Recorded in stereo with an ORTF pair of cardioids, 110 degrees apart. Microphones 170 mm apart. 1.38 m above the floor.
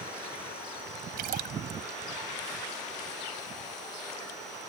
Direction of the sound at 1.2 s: 65° right.